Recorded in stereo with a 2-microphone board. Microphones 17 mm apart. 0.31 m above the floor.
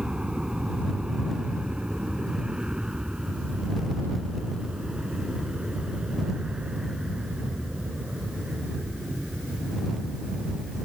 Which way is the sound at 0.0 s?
65° right (ahead or behind).